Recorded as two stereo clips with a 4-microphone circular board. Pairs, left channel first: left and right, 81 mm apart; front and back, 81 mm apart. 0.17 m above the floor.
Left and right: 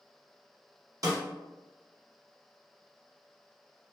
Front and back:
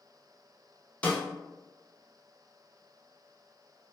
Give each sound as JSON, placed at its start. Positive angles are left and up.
{"t": 1.0, "sound": "a snare drum", "azimuth_deg": -70, "distance_m": 0.8}